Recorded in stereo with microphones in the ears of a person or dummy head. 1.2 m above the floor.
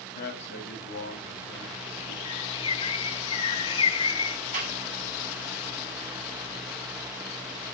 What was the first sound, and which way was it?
A man speaking, 50° left (ahead or behind).